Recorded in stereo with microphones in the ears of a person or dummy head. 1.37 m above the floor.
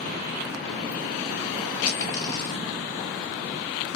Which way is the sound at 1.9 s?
25° left (ahead or behind).